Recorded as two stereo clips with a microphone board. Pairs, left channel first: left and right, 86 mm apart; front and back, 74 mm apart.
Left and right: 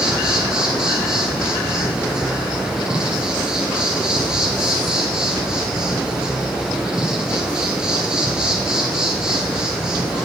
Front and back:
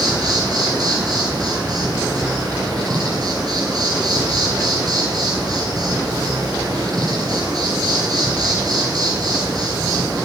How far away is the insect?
About 4.5 m.